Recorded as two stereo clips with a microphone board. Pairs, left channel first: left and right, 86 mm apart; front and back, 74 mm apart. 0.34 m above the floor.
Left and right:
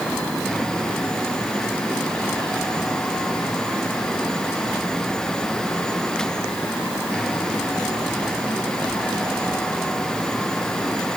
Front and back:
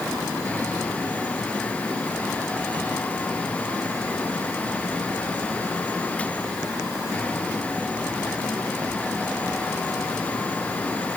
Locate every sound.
Only background noise.